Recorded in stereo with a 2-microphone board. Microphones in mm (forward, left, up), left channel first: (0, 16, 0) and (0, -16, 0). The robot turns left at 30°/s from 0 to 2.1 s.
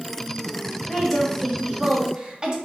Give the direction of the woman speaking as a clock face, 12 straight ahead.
12 o'clock.